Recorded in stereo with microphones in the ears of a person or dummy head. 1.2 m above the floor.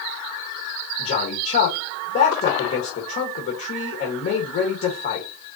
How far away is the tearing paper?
No tearing paper in this recording.